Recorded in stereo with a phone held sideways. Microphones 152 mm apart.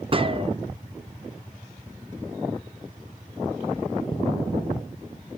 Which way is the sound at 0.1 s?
40° right (ahead or behind).